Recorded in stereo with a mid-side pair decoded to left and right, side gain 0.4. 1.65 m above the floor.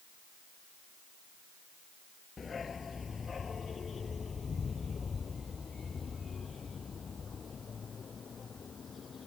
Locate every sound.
2.4 s a dog barking: 40° left; by 9.3 s 50° left